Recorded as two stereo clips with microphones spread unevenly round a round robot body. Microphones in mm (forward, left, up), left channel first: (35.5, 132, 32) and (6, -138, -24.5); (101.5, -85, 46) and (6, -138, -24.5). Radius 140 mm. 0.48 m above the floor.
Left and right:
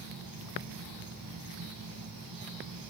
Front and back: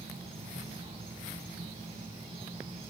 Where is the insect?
120° right, 1.5 m.